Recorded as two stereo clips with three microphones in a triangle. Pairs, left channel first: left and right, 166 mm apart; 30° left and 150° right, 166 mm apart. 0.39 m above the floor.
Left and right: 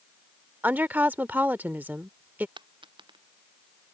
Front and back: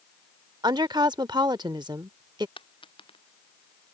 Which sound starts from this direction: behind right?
A woman speaking, at 0.6 s.